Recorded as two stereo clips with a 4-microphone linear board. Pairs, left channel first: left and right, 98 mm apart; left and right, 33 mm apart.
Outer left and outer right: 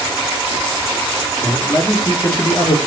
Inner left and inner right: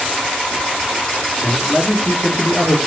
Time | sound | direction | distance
1.4 | a man speaking | 35° left (ahead or behind) | 3.5 m